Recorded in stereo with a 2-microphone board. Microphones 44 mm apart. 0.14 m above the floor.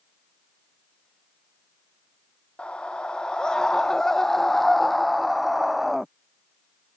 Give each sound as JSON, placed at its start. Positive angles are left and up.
{"t": 2.6, "sound": "a scream", "side_deg": 25}